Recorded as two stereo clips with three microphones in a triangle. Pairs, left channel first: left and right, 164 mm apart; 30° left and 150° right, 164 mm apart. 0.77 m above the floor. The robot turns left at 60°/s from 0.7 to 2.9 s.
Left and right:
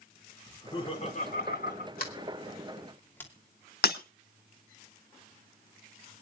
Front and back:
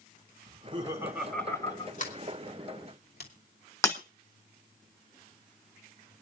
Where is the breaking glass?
100° left, 1.4 m.